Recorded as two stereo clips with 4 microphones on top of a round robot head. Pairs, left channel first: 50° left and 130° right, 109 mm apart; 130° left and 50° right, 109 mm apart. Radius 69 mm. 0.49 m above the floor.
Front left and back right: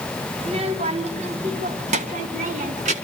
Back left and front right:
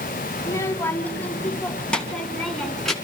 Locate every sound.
0.4 s a child speaking: 170° right, 1.3 m; by 2.9 s 145° right, 3 m